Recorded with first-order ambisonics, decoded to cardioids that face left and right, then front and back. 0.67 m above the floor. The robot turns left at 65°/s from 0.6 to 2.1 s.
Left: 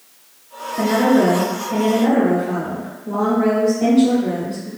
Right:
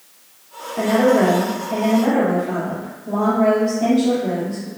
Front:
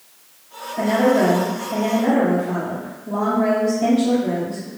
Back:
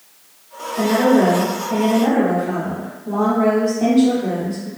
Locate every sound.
0.8 s a woman speaking: 90° right, 1.6 m; by 4.7 s straight behind, 1.6 m